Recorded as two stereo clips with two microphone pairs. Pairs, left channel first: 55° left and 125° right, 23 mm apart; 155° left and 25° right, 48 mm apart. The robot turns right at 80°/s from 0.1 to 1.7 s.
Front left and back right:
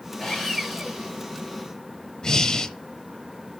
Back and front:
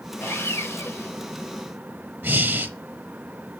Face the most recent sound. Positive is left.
turn(degrees=10)